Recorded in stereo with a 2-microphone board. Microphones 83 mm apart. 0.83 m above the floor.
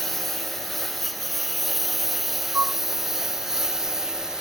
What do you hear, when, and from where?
0.0 s a lawn mower: centre (ahead or behind); by 4.4 s 5° right (ahead or behind)
2.5 s a flute: 30° right (ahead or behind)